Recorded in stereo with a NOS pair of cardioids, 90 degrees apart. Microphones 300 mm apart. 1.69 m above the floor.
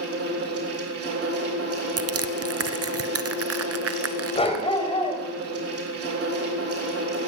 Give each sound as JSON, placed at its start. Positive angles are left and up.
{"t": 0.0, "sound": "a fan", "azimuth_deg": -50, "distance_m": 3.5}
{"t": 2.0, "sound": "crushing", "azimuth_deg": -50, "distance_m": 0.9}
{"t": 4.3, "sound": "a dog barking", "azimuth_deg": 20, "distance_m": 4.0}